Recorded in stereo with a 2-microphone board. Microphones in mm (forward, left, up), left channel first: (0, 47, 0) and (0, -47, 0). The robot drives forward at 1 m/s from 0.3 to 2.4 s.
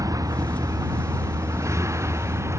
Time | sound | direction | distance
0.0 | a vehicle | 40° right (ahead or behind) | ?